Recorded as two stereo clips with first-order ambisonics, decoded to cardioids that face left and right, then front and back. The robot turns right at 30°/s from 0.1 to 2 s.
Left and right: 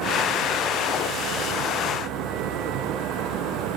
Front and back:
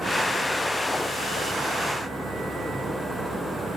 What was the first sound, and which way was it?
Only background noise.